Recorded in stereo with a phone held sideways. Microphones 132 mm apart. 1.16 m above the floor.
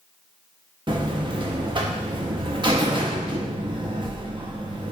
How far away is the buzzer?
About 0.6 m.